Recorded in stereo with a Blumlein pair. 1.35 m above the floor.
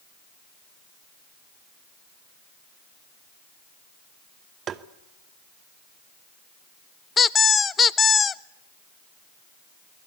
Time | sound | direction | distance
4.7 | tapping | 30° right | 1.0 m
7.2 | a squeak | 20° left | 0.6 m